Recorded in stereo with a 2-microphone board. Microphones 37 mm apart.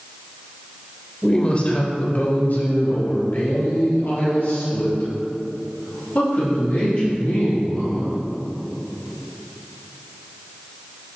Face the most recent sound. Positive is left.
turn(degrees=65)  # may be behind; listen again after turning